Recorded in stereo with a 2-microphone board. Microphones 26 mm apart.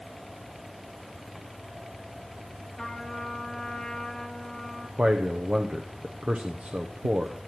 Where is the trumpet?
20° left (ahead or behind), 2.5 m.